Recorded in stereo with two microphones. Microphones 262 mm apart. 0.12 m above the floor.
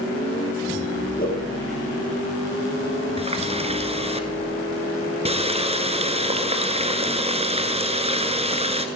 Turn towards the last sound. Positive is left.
turn(degrees=-25)  # may be behind; listen again after turning